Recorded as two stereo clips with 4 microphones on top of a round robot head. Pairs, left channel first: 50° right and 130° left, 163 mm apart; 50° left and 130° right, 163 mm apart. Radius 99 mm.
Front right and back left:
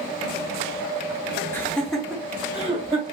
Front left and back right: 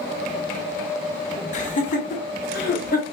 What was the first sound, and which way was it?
Laughter, 25° left.